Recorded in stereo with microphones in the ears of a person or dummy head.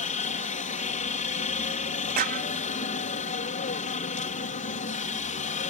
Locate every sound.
0.0 s a helicopter: 35° left (ahead or behind)
2.2 s a clap: 45° right (ahead or behind)